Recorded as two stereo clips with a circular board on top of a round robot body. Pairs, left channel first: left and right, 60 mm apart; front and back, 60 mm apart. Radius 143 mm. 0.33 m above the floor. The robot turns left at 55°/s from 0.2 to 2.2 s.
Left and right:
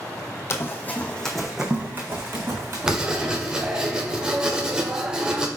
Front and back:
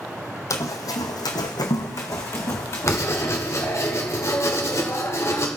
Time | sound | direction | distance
0.5 | running footsteps | 45° left | 1.0 m
2.9 | writing | 15° right | 2 m